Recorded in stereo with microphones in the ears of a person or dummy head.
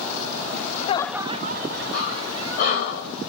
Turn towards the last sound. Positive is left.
turn(degrees=45)  # may be behind; listen again after turning